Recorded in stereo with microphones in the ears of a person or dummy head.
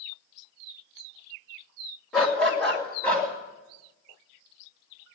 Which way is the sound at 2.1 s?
5° right (ahead or behind).